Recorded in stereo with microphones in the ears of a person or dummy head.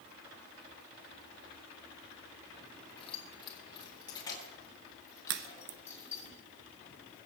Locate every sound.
3.0 s keys jangling: 35° left (ahead or behind), 2.5 m; by 6.3 s 15° left (ahead or behind), 6.5 m
5.3 s a crack: 65° right (ahead or behind), 1.1 m